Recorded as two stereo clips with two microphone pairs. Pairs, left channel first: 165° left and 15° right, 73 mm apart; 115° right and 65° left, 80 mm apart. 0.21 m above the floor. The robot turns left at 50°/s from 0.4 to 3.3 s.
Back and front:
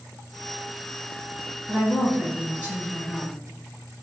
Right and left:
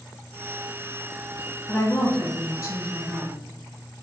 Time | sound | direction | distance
1.7 | a woman speaking | 75° right | 1.2 m